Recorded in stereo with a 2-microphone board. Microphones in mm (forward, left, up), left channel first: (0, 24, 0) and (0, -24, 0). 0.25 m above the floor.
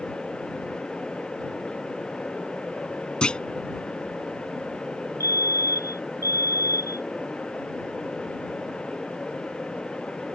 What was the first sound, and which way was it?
A clunk, 20° left (ahead or behind).